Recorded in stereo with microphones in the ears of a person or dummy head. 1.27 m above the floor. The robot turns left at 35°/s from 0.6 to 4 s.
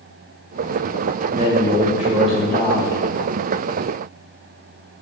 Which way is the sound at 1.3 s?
140° right.